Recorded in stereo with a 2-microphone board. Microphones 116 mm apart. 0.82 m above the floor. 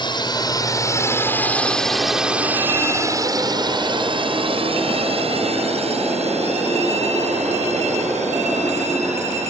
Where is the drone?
45° left (ahead or behind); by 9.5 s 75° right (ahead or behind).